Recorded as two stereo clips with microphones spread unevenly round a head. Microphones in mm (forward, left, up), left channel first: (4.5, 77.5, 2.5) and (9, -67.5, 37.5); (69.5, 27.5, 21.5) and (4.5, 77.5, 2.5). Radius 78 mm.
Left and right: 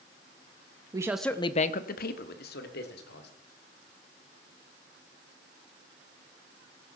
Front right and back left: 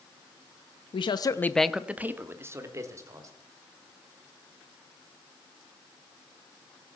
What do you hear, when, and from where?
0.9 s a man speaking: 20° right, 1.0 m; by 3.3 s 90° left, 3.5 m